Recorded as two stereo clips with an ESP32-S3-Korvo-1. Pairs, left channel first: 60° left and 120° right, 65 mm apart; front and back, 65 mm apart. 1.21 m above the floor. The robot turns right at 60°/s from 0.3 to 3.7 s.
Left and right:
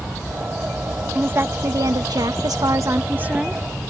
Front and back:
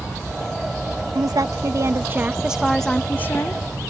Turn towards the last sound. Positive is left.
turn(degrees=-30)